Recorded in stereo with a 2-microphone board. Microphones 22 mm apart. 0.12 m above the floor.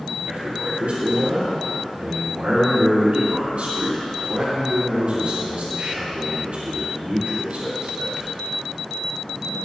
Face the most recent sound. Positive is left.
turn(degrees=-60)  # may be behind; listen again after turning